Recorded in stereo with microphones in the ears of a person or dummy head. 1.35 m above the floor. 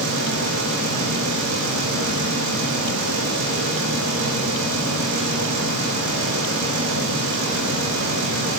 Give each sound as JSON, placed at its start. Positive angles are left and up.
{"t": 0.0, "sound": "a fan", "side_deg": -80, "distance_m": 0.9}